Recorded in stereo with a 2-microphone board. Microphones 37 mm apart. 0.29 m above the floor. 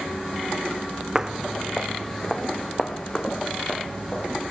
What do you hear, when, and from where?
1.1 s footsteps: 20° right (ahead or behind), 0.7 m; by 4.3 s 30° left (ahead or behind), 4 m